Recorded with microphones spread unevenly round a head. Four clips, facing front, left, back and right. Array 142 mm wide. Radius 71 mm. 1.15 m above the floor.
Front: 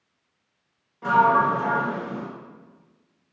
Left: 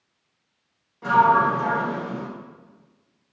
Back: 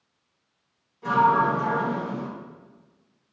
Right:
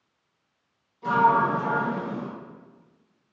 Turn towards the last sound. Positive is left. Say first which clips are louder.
# left 3 dB, front 2 dB
turn(degrees=40)